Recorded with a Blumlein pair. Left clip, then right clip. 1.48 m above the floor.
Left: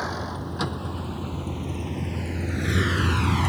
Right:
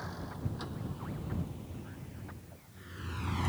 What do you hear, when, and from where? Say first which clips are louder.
0.0 s a vehicle: left 13 dB; 35° left; by 3.5 s 65° left